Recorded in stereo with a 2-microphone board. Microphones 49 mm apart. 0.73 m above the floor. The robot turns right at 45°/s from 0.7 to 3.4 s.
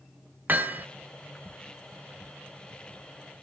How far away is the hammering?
About 1.4 m.